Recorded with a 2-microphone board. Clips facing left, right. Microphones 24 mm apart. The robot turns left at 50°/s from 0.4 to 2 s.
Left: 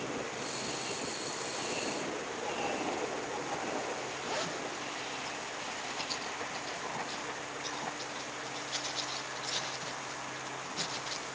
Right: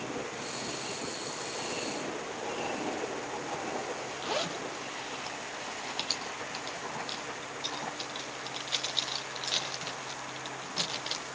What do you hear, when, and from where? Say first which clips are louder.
4.2 s a zipper: right 5 dB; 70° right (ahead or behind), 4.5 m